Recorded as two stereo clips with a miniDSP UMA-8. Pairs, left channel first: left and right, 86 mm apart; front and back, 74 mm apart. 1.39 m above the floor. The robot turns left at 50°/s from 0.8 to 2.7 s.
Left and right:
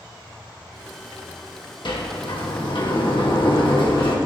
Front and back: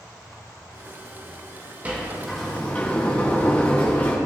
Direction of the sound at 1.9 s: 115° left.